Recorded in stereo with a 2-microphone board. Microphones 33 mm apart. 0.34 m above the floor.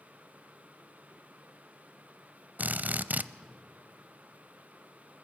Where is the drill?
55° right (ahead or behind), 0.6 m.